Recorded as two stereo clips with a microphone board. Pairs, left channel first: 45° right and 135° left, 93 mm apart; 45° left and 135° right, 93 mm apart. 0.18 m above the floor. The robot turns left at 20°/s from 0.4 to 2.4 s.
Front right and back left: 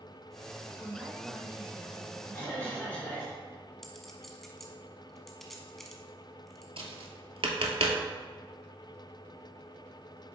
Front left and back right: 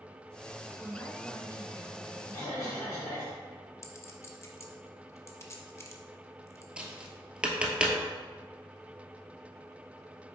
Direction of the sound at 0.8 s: 85° left.